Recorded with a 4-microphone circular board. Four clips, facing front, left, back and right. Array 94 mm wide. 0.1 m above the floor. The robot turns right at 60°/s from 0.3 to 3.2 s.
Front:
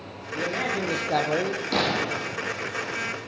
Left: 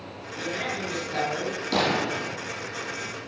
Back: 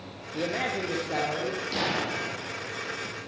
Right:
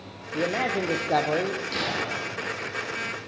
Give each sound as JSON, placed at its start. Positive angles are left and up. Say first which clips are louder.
{"t": 0.3, "sound": "a man speaking", "louder": "right 6 dB, front 2 dB", "azimuth_deg": -105, "distance_m": 3.0}
{"t": 1.7, "sound": "a gunshot", "louder": "left 5 dB, front 6 dB", "azimuth_deg": 50, "distance_m": 2.5}